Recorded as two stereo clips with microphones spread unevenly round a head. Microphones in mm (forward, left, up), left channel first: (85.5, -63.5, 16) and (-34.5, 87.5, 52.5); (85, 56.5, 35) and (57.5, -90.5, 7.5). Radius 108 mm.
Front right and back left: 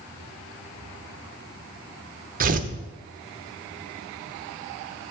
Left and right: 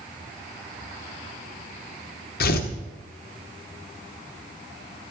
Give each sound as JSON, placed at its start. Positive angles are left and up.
{"t": 2.4, "sound": "tearing paper", "azimuth_deg": 90, "distance_m": 0.9}